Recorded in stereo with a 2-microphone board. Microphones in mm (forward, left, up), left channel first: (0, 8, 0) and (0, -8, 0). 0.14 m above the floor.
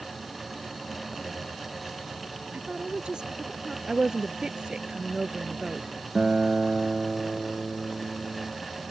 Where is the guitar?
55° right (ahead or behind).